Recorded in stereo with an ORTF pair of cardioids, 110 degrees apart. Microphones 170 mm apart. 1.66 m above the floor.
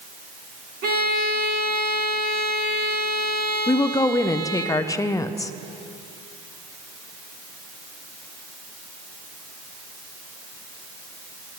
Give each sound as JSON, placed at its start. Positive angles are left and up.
{"t": 0.8, "sound": "a violin", "azimuth_deg": -60, "distance_m": 2.0}
{"t": 3.7, "sound": "a woman speaking", "azimuth_deg": 20, "distance_m": 0.7}